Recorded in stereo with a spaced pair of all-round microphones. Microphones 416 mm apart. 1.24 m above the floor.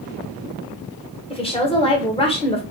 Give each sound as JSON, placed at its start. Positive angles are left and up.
{"t": 1.3, "sound": "a woman speaking", "side_deg": 15, "distance_m": 1.5}